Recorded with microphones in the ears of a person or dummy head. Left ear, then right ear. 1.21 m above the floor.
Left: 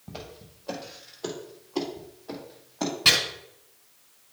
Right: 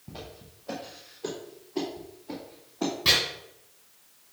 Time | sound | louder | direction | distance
0.1 | footsteps | left 2 dB | 30° left (ahead or behind) | 3.5 m
3.0 | chopping | left 4 dB | 30° left (ahead or behind) | 3.5 m